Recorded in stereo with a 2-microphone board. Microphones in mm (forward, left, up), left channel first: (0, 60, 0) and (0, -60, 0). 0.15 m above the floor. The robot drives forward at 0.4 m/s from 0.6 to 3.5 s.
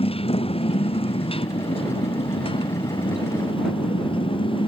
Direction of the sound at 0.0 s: 50° left (ahead or behind).